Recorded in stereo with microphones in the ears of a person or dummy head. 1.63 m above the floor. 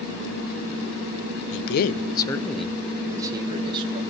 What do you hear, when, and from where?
1.5 s a man speaking: 65° left (ahead or behind), 0.5 m; by 4.0 s 30° right (ahead or behind), 1.3 m